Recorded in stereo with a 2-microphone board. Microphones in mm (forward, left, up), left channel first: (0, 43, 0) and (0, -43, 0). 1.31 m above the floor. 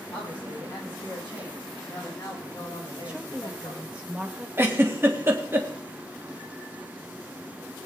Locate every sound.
0.1 s a man speaking: 25° left (ahead or behind), 7.5 m; by 3.9 s 45° left (ahead or behind), 5.5 m
3.0 s a woman speaking: 15° right (ahead or behind), 1.4 m
4.6 s a giggle: 30° right (ahead or behind), 1.6 m